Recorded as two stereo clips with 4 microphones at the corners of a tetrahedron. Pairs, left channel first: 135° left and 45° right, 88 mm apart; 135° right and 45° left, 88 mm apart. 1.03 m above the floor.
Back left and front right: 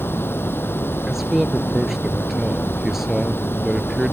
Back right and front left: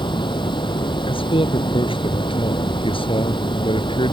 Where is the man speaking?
130° right.